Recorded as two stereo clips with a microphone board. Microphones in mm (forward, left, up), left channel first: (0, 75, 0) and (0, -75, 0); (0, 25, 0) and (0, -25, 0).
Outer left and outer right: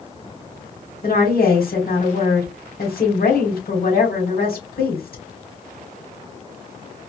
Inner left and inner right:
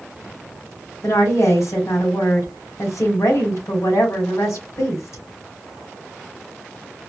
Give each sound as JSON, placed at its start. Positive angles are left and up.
{"t": 1.0, "sound": "a woman speaking", "side_deg": 70, "distance_m": 1.9}